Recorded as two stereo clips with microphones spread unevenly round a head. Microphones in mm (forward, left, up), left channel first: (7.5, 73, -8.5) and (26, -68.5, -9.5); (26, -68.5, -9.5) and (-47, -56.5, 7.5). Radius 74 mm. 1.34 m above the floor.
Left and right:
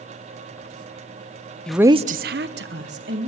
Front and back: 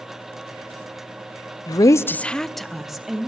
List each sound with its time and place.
1.7 s a woman speaking: 15° left, 0.6 m; by 3.3 s 105° right, 2.0 m